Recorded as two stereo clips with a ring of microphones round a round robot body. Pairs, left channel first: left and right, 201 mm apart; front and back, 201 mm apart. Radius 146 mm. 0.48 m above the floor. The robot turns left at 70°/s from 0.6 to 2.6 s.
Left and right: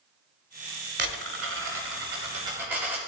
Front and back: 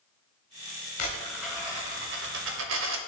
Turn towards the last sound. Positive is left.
turn(degrees=-170)